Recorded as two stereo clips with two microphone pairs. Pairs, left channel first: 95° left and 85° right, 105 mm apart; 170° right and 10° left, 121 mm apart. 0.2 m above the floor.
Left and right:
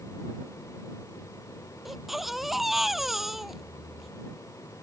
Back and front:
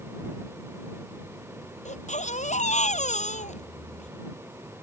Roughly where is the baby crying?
Behind.